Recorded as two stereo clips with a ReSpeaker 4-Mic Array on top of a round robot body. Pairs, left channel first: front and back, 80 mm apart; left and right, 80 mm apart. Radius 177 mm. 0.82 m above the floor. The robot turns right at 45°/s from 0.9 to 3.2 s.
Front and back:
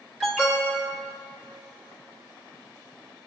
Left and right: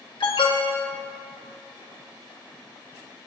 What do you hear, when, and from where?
0.2 s an alarm: 95° left, 2.5 m